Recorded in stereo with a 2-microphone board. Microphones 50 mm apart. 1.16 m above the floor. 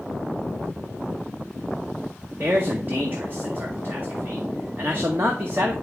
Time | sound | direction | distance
2.4 | a man speaking | 45° right (ahead or behind) | 1.5 m